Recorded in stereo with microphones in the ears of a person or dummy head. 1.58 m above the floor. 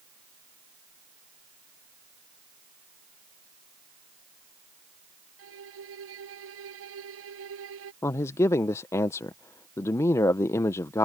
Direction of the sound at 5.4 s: 75° right (ahead or behind).